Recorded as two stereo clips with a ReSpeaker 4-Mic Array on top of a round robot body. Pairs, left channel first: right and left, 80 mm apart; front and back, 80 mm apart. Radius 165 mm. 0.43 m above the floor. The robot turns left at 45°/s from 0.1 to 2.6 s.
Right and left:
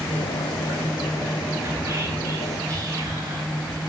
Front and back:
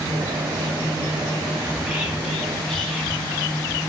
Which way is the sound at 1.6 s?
125° left.